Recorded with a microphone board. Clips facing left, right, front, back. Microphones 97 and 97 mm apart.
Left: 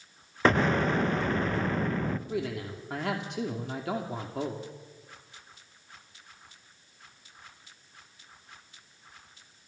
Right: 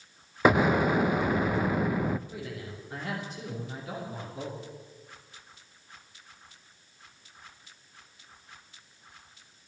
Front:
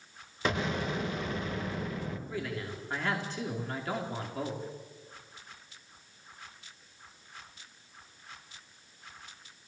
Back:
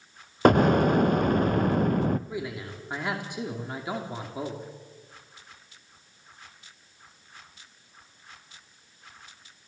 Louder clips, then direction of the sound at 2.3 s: Left 6 dB, back 2 dB; 105° left.